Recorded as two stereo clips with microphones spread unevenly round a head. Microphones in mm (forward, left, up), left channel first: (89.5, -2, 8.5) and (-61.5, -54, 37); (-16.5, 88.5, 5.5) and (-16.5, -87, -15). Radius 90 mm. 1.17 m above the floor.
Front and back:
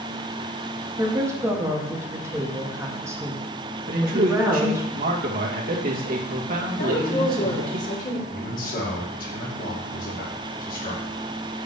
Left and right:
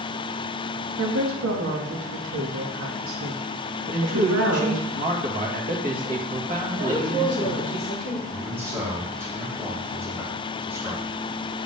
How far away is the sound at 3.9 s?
About 1.7 m.